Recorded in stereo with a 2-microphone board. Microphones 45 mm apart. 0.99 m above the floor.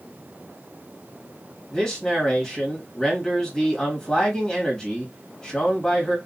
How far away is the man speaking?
About 1.7 m.